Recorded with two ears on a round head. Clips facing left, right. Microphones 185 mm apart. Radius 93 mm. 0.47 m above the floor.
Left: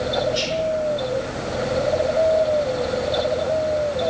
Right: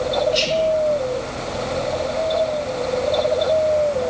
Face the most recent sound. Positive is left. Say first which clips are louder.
# right 4 dB
turn(degrees=-25)  # may be behind; listen again after turning